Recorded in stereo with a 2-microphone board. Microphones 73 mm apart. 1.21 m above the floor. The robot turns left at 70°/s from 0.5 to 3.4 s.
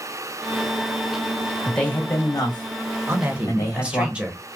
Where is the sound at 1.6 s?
170° left, 1.1 m; by 4.1 s 50° left, 1.1 m.